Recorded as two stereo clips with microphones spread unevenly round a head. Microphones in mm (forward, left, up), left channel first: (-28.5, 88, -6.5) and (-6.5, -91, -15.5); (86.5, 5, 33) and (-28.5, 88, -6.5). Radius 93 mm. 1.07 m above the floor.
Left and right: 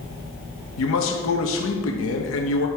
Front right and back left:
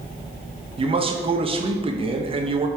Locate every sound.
0.8 s a man speaking: 105° left, 1.2 m